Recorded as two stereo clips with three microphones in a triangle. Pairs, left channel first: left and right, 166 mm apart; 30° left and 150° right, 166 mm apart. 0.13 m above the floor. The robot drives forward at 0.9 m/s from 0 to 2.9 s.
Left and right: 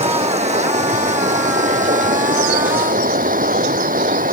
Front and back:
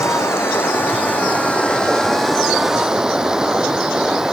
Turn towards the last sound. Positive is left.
turn(degrees=-65)